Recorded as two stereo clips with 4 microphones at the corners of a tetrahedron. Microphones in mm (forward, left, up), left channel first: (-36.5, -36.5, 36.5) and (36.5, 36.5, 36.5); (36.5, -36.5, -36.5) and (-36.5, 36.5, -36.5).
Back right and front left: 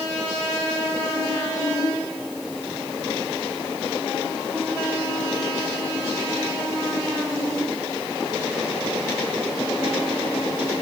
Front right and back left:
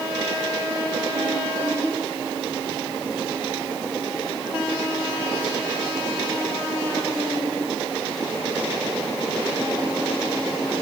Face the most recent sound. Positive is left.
No sound to turn to.